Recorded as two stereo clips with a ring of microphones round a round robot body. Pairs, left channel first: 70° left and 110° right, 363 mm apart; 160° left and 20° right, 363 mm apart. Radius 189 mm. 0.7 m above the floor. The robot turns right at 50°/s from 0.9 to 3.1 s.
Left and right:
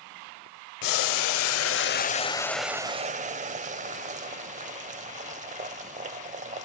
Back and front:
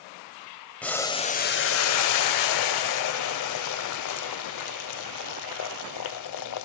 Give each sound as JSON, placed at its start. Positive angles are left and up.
{"t": 0.8, "sound": "boiling", "azimuth_deg": 70, "distance_m": 0.6}